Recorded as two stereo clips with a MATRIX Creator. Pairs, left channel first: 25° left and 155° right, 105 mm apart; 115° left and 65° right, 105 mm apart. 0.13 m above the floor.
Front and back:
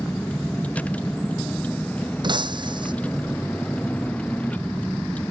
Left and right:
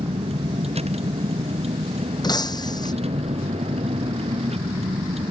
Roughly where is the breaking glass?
Behind.